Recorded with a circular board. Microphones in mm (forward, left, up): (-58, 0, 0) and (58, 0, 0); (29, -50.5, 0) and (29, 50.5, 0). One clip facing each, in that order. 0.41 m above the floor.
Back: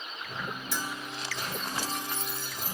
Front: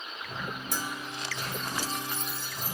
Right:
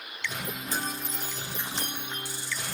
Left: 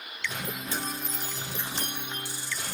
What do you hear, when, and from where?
0.7 s a bell: 40° right, 0.8 m